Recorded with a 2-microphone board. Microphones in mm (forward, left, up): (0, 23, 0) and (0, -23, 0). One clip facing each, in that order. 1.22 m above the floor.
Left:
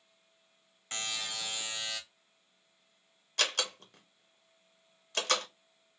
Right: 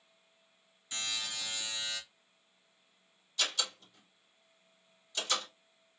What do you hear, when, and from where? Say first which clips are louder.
0.9 s a buzzer: left 1 dB; 55° left (ahead or behind), 0.9 m
3.4 s a door slam: left 3 dB; 65° left (ahead or behind), 0.8 m